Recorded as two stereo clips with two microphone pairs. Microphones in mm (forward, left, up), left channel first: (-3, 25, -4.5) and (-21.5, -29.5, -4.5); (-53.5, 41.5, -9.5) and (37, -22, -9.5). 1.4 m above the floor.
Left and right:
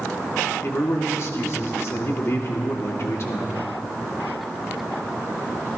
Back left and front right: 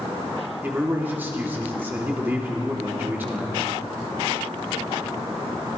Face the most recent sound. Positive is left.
turn(degrees=35)